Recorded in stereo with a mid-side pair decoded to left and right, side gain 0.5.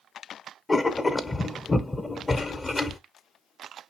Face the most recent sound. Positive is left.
turn(degrees=30)